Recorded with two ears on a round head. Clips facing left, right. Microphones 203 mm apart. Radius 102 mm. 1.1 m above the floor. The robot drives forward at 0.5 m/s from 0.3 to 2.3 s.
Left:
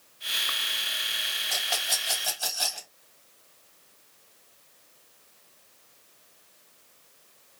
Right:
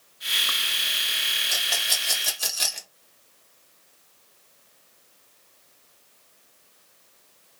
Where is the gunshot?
I don't hear a gunshot.